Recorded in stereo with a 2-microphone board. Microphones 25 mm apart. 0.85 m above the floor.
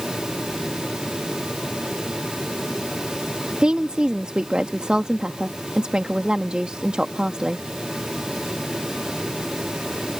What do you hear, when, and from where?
3.6 s a woman speaking: 45° right (ahead or behind)